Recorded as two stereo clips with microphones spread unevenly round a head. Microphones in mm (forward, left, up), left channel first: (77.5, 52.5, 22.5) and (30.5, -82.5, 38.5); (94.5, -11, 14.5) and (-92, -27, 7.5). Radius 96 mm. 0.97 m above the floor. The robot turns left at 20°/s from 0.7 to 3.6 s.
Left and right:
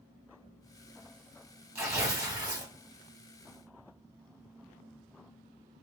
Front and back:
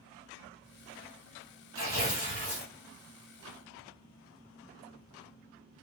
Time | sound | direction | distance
1.8 | tearing paper | 30° right | 2.5 m